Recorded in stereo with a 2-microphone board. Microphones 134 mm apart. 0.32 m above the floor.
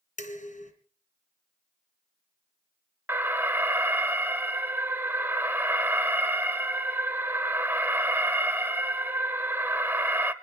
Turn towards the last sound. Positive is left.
turn(degrees=-15)  # may be behind; listen again after turning